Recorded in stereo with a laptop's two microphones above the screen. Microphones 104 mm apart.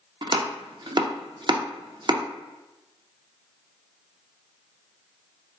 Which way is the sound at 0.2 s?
45° right (ahead or behind).